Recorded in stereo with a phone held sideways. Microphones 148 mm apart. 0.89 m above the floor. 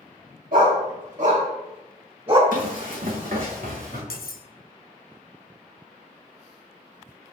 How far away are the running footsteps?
About 2.5 m.